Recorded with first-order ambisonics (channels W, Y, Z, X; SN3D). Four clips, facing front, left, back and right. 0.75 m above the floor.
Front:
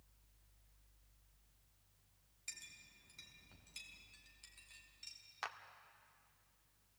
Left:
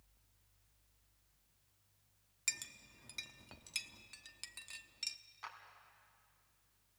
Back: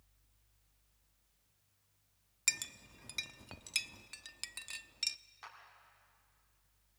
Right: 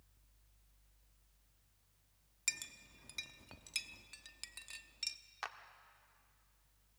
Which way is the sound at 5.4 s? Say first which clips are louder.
Right 5 dB, front 8 dB; 50° right.